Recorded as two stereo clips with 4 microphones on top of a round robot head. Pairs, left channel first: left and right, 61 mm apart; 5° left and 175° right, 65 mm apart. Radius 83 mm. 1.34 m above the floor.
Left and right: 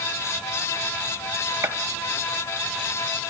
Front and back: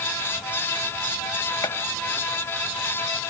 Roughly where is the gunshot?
Ahead right.